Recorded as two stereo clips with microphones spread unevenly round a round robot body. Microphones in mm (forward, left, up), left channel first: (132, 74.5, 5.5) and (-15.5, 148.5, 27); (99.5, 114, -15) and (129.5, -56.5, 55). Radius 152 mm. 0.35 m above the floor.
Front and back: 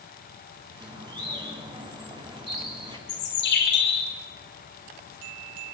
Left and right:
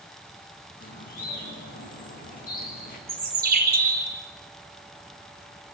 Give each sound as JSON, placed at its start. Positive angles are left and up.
{"t": 0.8, "sound": "a bird", "azimuth_deg": 90, "distance_m": 4.5}
{"t": 3.1, "sound": "a bird", "azimuth_deg": -50, "distance_m": 5.0}